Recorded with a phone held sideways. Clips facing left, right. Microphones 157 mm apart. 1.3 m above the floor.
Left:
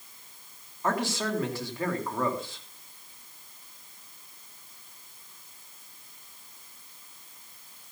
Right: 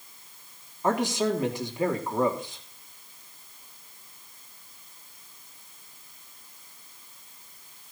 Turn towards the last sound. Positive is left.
turn(degrees=-20)  # may be behind; listen again after turning